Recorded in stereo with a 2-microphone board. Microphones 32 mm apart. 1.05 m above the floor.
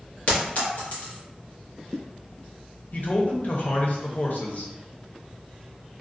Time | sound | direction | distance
0.3 | a clink | 55° left (ahead or behind) | 0.9 m
2.9 | a man speaking | 55° left (ahead or behind) | 0.7 m